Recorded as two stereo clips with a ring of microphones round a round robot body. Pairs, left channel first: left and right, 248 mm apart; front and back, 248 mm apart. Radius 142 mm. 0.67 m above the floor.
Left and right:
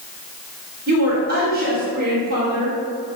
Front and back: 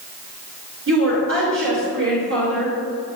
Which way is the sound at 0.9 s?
145° right.